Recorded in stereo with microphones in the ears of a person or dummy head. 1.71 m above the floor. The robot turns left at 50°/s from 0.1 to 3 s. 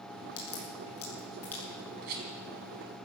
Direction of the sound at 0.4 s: 65° left (ahead or behind).